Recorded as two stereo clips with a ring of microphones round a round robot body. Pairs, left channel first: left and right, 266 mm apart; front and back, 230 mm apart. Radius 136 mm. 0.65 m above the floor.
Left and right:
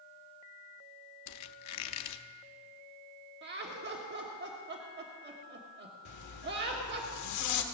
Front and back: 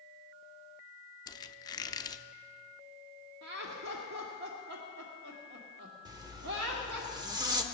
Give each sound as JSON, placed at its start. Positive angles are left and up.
{"t": 1.3, "sound": "a squeak", "azimuth_deg": 75, "distance_m": 0.7}
{"t": 3.4, "sound": "laughter", "azimuth_deg": -135, "distance_m": 1.3}
{"t": 6.0, "sound": "a zipper", "azimuth_deg": 105, "distance_m": 1.3}